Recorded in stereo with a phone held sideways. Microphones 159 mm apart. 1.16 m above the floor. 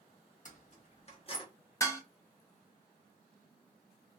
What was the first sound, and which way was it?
Keys jangling, 55° left (ahead or behind).